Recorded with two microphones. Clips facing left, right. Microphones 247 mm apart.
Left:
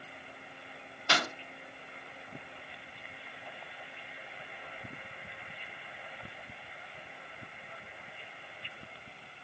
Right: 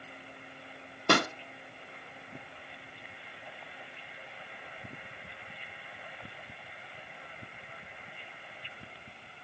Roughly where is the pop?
Right.